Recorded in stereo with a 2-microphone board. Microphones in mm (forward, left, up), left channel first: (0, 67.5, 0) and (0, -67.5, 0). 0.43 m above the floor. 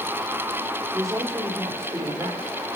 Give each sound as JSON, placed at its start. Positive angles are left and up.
{"t": 0.9, "sound": "a woman speaking", "side_deg": -20, "distance_m": 1.5}